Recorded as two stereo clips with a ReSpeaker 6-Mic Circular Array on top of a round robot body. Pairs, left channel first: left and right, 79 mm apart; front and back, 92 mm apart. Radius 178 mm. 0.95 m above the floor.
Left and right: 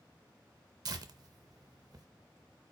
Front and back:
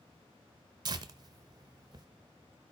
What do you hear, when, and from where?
0.8 s tearing paper: 135° right, 0.5 m